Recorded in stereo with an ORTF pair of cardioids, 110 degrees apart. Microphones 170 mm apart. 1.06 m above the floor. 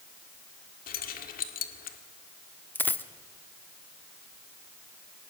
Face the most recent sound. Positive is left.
turn(degrees=10)